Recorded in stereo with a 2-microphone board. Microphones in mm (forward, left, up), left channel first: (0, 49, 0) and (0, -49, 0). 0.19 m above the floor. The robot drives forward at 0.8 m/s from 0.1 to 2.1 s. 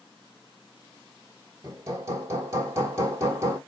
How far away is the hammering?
About 1.4 m.